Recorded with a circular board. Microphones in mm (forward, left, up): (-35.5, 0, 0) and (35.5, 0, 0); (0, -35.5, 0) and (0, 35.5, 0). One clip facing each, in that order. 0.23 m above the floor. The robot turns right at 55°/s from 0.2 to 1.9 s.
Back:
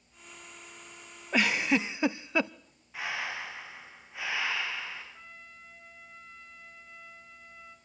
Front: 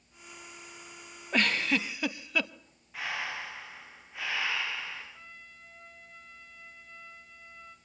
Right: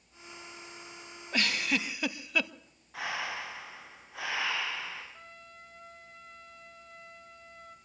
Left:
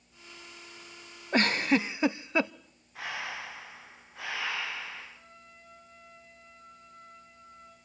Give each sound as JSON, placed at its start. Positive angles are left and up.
{"t": 1.3, "sound": "a giggle", "azimuth_deg": 100, "distance_m": 0.6}
{"t": 2.9, "sound": "breathing", "azimuth_deg": -95, "distance_m": 9.0}
{"t": 5.1, "sound": "a trumpet", "azimuth_deg": -95, "distance_m": 3.0}